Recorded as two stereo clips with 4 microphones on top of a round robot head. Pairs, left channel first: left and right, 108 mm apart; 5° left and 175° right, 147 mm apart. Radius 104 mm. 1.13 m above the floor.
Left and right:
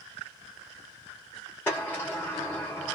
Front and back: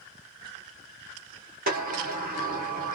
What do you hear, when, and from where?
1.7 s a sliding door: 170° left, 1.1 m